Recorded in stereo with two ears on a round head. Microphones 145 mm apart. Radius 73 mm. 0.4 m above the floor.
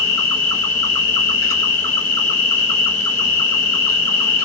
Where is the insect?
15° left (ahead or behind), 1.4 m.